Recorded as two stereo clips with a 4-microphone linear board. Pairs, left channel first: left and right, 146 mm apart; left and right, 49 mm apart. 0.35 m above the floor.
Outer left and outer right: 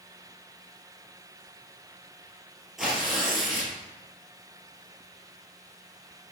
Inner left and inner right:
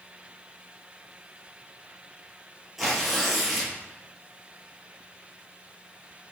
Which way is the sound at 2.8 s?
Centre (ahead or behind).